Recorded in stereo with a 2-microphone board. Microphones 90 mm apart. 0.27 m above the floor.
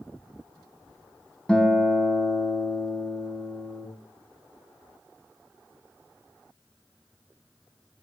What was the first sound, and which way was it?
A guitar, 10° left (ahead or behind).